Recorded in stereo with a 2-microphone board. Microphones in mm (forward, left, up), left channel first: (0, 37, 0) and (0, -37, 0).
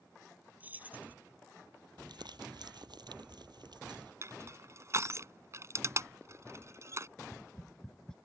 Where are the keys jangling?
20° right (ahead or behind).